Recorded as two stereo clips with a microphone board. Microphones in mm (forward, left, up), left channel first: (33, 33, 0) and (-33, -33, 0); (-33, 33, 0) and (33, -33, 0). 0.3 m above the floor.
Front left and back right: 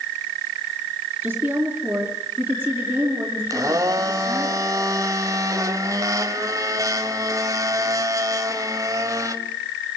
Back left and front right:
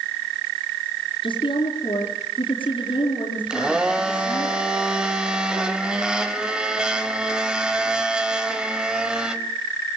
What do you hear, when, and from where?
1.2 s a woman speaking: 150° left, 4.5 m
3.5 s a blender: 120° right, 1.7 m